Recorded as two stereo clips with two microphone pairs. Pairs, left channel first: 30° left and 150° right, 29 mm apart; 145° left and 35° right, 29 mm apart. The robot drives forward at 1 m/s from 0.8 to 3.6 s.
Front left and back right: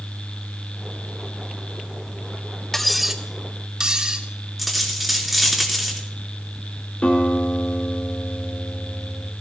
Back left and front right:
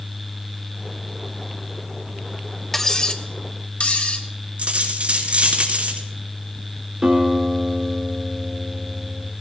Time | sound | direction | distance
2.7 | cutlery clinking | 80° left | 0.8 m
4.6 | a dropped coin | 55° right | 3 m
7.0 | a guitar | 15° left | 3 m